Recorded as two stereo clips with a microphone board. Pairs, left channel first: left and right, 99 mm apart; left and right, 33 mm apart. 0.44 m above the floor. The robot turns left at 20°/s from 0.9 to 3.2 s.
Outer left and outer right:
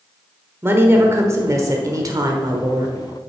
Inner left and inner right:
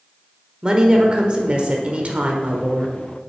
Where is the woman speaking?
35° right, 1.1 m; by 3.0 s 75° right, 1.1 m.